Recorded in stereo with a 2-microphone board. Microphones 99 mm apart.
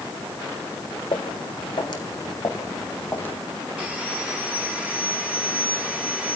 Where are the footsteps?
60° left (ahead or behind), 4 m; by 3.4 s 20° left (ahead or behind), 2.5 m.